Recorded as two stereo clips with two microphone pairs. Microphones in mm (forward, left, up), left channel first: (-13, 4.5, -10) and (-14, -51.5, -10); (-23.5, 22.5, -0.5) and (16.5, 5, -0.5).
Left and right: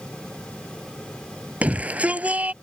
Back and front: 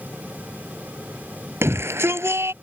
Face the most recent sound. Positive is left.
turn(degrees=-25)